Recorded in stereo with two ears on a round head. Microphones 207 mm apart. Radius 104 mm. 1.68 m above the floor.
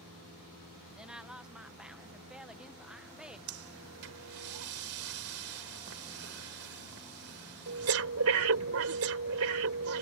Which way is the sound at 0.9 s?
5° right (ahead or behind).